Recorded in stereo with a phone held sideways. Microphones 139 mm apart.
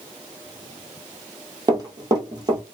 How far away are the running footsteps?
About 1.6 m.